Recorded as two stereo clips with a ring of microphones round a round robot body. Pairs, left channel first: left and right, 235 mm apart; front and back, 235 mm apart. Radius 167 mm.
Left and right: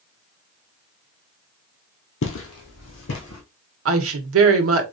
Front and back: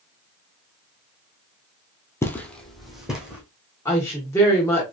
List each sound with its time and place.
2.2 s footsteps: 80° left, 1.0 m; by 3.4 s 95° left, 2.5 m
3.9 s a woman speaking: 80° right, 1.0 m